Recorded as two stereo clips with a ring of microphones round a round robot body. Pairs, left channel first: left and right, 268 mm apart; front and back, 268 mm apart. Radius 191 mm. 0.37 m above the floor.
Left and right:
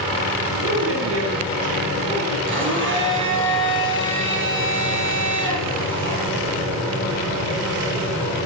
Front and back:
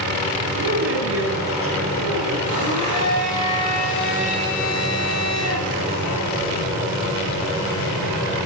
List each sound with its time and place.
0.6 s a woman speaking: 140° right, 2.5 m; by 2.4 s 130° right, 4 m
2.5 s a blender: 45° right, 6 m